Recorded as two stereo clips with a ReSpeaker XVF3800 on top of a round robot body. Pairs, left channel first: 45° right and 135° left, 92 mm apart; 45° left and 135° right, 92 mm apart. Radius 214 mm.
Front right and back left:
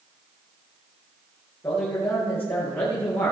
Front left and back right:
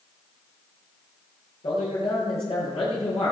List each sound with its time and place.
1.6 s a man speaking: 25° left, 10 m